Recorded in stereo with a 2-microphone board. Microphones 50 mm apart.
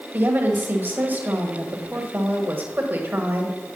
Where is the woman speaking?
45° right (ahead or behind), 1.4 m.